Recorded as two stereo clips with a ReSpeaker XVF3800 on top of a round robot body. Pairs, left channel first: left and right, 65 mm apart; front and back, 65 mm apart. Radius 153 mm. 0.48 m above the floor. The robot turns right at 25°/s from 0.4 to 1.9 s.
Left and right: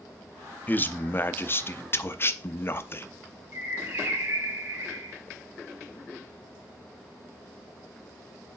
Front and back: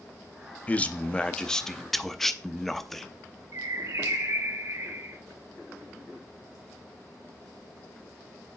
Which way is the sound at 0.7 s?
50° left.